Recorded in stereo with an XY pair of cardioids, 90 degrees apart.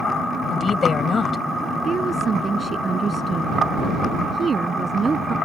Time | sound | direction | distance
0.5 | a woman speaking | 45° left | ?
1.9 | a woman speaking | 40° right | ?